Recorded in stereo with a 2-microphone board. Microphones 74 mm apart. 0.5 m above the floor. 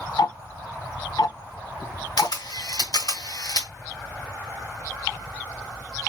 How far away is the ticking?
About 0.5 m.